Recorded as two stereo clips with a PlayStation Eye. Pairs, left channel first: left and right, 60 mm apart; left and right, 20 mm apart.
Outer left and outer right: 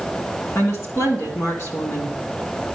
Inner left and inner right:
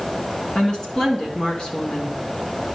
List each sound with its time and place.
0.6 s a woman speaking: 50° left (ahead or behind), 2.5 m